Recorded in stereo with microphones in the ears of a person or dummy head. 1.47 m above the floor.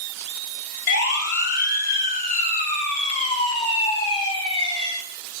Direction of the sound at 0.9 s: 70° left (ahead or behind).